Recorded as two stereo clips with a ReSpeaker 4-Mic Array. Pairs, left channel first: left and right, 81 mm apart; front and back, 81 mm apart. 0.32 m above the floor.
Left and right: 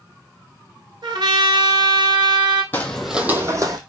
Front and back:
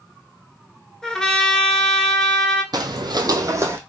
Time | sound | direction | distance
1.0 | a trumpet | 85° right | 0.7 m
2.7 | footsteps | 155° left | 0.6 m